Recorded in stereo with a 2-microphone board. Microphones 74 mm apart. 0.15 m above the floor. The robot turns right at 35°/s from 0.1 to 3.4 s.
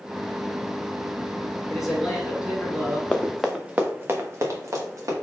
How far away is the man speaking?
About 1.2 m.